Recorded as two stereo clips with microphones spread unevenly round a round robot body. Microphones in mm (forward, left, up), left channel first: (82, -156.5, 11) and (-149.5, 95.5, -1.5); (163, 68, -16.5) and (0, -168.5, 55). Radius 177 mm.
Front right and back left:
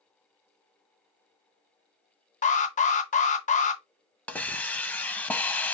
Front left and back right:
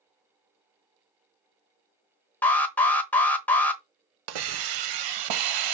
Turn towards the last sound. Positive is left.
turn(degrees=-135)